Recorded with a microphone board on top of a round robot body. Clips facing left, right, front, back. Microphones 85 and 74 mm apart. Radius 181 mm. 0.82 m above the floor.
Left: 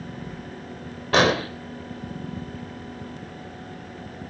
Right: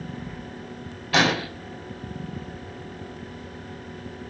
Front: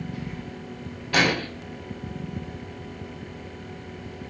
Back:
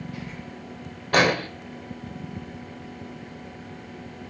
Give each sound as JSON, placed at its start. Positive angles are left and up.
{"t": 1.1, "sound": "an explosion", "azimuth_deg": 135, "distance_m": 3.5}